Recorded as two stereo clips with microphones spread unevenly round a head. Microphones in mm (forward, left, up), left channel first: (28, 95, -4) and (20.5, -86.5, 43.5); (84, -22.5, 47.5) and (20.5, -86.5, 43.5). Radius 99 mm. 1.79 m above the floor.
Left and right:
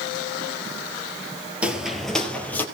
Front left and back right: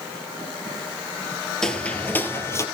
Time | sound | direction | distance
1.6 | footsteps | 35° right | 2 m